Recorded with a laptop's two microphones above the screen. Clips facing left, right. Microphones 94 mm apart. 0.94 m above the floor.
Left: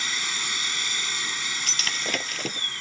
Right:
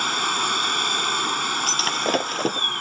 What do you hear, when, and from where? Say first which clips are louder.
0.0 s a machine running: right 10 dB; 55° right (ahead or behind)
1.7 s breaking glass: right 8 dB; 40° right (ahead or behind)